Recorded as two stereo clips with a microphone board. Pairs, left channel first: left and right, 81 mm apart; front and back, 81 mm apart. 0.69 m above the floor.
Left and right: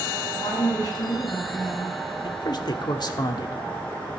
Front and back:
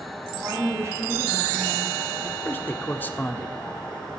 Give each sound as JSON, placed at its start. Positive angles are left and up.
{"t": 0.3, "sound": "a woman speaking", "azimuth_deg": 125, "distance_m": 6.0}
{"t": 2.2, "sound": "a man speaking", "azimuth_deg": 65, "distance_m": 1.2}